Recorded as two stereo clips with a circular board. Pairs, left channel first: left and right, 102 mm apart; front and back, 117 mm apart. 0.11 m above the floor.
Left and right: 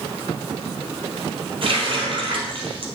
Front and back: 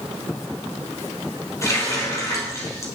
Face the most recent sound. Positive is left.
turn(degrees=-60)